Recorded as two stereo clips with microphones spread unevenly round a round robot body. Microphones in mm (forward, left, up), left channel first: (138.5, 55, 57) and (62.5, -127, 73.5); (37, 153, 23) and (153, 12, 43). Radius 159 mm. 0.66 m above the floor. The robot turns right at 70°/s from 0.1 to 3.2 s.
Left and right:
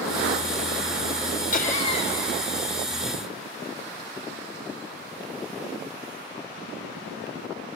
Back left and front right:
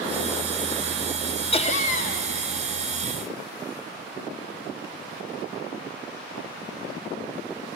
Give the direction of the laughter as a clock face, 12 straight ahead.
9 o'clock.